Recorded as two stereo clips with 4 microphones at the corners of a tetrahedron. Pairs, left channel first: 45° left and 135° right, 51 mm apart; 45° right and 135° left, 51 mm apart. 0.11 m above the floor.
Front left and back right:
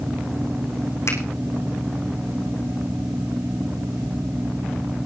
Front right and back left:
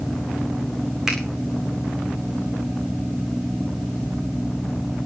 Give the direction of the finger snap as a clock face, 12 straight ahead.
10 o'clock.